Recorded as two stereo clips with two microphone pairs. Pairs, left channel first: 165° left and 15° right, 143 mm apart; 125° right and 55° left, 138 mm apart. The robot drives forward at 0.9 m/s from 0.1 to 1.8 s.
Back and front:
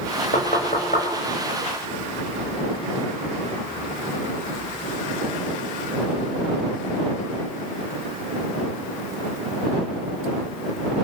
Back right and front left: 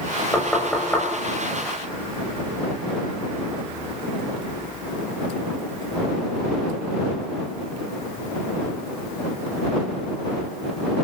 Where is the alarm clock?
No alarm clock in this recording.